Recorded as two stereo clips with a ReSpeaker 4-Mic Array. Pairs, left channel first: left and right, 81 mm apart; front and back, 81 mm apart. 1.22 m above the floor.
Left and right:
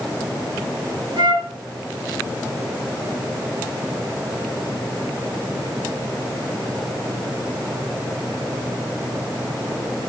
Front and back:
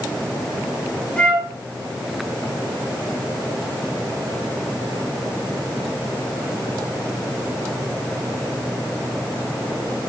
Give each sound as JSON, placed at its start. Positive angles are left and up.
{"t": 1.2, "sound": "a flute", "azimuth_deg": -80, "distance_m": 2.0}